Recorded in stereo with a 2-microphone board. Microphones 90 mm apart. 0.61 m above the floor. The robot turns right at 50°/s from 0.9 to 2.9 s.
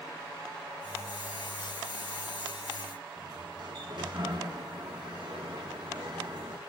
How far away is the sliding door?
About 5.5 m.